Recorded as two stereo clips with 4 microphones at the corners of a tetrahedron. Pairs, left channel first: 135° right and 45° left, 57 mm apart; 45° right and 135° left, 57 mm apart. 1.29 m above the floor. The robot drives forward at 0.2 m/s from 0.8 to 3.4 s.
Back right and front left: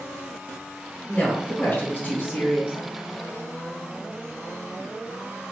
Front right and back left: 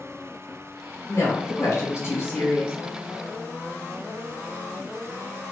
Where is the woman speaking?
70° right, 1.1 m; by 2.7 s 90° right, 1.1 m.